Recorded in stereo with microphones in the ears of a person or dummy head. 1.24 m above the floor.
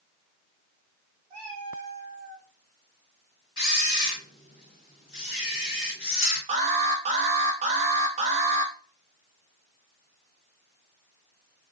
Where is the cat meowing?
30° right (ahead or behind), 1.5 m.